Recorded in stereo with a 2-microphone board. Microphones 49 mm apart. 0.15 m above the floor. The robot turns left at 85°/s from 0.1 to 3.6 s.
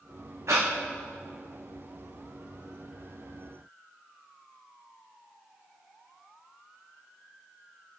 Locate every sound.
0.5 s breathing: 65° right (ahead or behind), 1.9 m; by 0.7 s 45° right (ahead or behind), 1.9 m